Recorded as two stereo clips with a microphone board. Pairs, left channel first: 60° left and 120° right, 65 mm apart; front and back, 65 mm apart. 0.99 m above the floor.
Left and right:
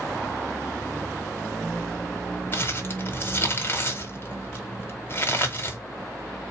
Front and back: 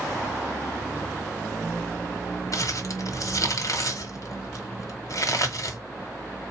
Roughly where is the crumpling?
Ahead.